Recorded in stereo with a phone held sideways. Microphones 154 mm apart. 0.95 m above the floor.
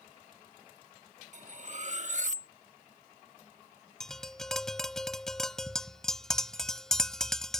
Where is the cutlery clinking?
50° right (ahead or behind).